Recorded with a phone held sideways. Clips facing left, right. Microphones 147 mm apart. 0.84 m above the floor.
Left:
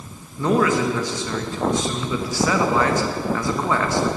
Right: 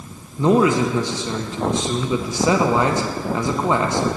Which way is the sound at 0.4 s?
20° right (ahead or behind).